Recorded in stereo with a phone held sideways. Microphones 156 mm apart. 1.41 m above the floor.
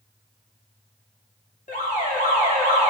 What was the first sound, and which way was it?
An alarm, 55° left (ahead or behind).